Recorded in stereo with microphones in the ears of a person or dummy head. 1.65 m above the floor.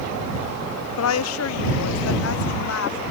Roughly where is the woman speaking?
Left.